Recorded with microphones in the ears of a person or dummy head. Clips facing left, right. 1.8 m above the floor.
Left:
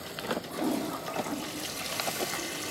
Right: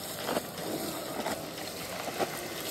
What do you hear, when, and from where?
0.5 s a toilet flushing: 70° left (ahead or behind), 3 m